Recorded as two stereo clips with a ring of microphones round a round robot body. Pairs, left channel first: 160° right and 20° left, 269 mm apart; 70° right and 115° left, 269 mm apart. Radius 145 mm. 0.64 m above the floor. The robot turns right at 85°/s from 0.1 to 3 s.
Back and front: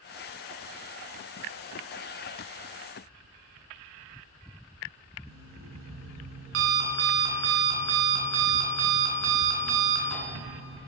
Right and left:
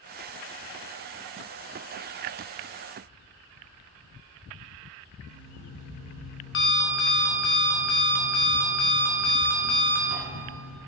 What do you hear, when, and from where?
5.3 s an alarm clock: 20° right, 2.5 m